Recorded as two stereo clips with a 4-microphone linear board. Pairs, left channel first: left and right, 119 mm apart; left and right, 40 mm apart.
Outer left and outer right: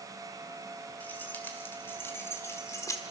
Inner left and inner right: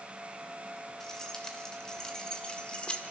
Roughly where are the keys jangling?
Centre.